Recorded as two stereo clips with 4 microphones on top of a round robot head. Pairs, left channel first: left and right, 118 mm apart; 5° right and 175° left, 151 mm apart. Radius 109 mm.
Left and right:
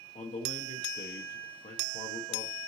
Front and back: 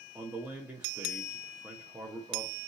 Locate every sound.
0.1 s a man speaking: 100° left, 0.9 m